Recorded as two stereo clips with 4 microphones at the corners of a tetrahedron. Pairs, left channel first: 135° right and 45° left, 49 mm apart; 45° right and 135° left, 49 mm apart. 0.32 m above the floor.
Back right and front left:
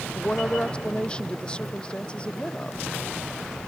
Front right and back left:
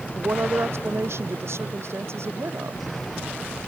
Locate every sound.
0.1 s a woman speaking: 155° left